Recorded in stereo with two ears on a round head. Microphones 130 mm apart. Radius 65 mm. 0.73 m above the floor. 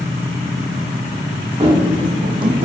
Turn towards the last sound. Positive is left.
turn(degrees=-45)  # may be behind; listen again after turning